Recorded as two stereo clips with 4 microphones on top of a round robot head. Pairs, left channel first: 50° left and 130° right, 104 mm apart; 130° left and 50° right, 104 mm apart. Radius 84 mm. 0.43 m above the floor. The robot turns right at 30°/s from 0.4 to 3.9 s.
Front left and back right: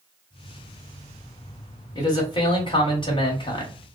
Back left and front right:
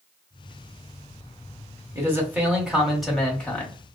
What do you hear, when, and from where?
1.9 s a man speaking: 10° left, 1.4 m; by 4.0 s 70° left, 1.4 m